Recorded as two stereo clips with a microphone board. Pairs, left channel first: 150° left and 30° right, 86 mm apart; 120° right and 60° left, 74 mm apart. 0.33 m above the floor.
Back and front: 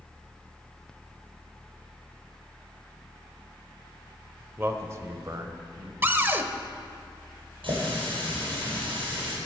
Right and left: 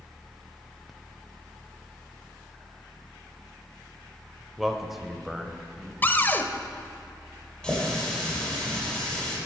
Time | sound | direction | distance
4.6 | a man speaking | 25° right | 1.0 m
6.0 | a cupboard door | 80° right | 0.7 m
7.6 | a running tap | 40° right | 6 m